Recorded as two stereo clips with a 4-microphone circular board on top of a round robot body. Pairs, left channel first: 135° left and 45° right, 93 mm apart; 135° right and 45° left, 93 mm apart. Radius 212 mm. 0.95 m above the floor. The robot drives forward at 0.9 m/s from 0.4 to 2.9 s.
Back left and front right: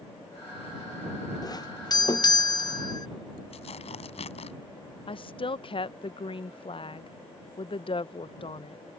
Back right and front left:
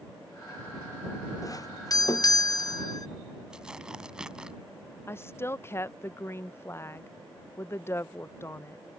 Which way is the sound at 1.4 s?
175° left.